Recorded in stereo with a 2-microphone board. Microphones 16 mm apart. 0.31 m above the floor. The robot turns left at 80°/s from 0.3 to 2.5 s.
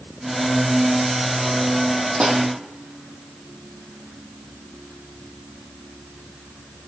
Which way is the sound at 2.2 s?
80° right.